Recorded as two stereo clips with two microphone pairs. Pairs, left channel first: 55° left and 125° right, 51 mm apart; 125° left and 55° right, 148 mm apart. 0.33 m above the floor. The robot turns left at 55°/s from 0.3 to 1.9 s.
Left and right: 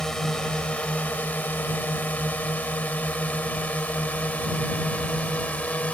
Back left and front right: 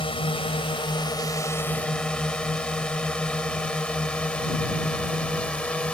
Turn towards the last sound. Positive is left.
turn(degrees=50)